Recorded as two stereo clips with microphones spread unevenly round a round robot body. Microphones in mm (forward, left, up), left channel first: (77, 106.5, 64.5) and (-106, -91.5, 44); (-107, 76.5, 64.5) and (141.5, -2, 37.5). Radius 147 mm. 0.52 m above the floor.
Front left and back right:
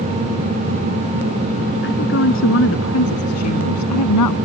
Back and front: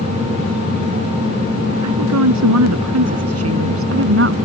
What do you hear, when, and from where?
1.8 s a woman speaking: 5° right; by 4.4 s 25° left